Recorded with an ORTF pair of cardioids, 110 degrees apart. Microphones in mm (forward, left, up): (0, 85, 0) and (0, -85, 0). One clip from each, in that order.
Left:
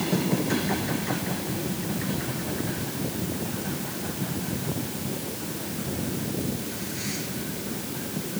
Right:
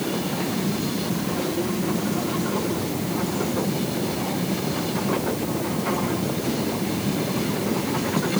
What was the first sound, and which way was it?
Only background noise.